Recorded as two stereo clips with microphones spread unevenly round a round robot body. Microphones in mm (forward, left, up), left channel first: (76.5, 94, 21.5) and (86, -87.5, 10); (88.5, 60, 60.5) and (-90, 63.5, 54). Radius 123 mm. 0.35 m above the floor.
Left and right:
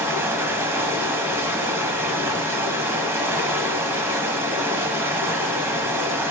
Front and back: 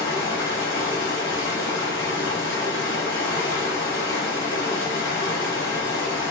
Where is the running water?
10° right, 1.0 m.